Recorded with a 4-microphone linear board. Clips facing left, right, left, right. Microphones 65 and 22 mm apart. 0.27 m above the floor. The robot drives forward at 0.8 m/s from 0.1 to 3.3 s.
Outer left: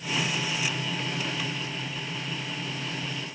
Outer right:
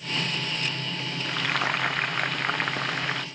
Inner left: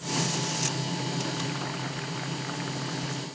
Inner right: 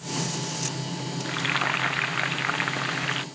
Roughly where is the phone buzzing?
No phone buzzing in this recording.